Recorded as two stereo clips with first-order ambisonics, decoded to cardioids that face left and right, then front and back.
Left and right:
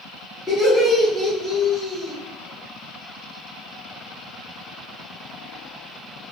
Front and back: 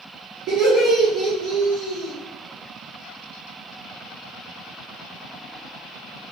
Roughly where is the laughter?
Behind.